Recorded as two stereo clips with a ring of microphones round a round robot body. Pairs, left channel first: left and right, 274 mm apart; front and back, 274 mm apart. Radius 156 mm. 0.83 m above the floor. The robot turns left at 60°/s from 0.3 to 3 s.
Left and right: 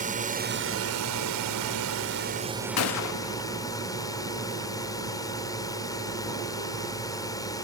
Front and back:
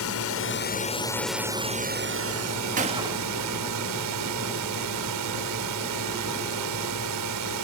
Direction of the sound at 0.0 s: 30° right.